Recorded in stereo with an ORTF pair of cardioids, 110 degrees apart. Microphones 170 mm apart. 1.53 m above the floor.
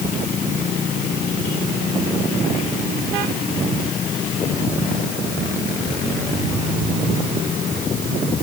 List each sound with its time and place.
Only background noise.